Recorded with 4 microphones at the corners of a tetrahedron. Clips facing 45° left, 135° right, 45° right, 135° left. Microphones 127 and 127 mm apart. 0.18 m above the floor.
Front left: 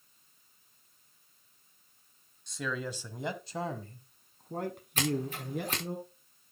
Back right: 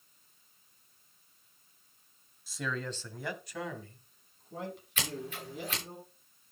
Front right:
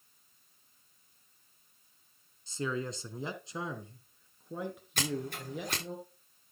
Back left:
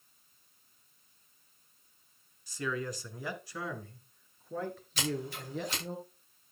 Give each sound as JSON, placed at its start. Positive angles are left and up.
{"t": 2.5, "sound": "a man speaking", "azimuth_deg": -55, "distance_m": 1.1}
{"t": 5.0, "sound": "scissors", "azimuth_deg": -5, "distance_m": 6.0}